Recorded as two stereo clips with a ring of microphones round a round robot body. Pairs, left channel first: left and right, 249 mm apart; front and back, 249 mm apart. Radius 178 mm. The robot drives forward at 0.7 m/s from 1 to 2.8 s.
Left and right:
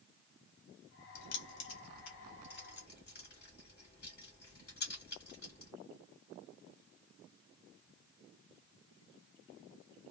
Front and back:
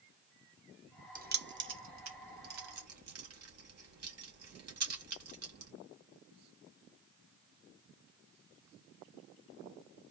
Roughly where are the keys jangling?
Behind left.